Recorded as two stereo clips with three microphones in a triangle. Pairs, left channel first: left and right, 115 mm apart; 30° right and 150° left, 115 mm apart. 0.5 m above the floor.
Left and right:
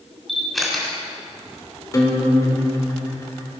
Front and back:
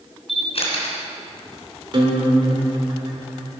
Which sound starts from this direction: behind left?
A guitar, at 1.9 s.